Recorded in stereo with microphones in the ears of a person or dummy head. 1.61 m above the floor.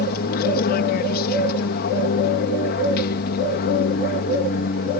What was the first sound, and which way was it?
An aircraft, 50° left (ahead or behind).